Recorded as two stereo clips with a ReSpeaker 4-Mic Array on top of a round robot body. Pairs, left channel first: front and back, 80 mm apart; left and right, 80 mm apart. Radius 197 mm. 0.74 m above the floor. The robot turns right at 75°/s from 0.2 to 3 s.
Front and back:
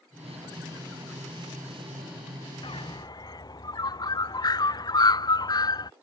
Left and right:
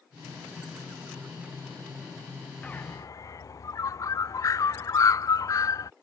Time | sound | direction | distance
2.6 | a bird | 10° left | ?